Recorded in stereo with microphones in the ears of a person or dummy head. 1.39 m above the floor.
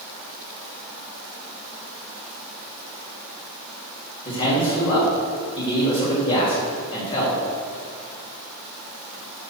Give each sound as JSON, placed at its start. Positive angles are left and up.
{"t": 4.2, "sound": "a man speaking", "side_deg": 30, "distance_m": 2.5}